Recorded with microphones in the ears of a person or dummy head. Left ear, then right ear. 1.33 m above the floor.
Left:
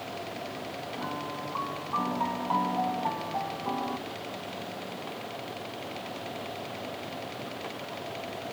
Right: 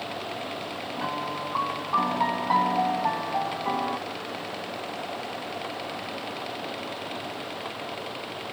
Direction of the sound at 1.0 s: 70° right (ahead or behind).